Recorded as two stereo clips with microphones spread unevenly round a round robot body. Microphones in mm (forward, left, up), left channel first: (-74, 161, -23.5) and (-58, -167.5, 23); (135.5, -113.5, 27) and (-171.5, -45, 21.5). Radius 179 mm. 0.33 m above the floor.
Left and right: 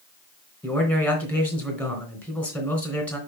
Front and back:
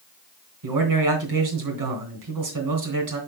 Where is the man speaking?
175° left, 3 m.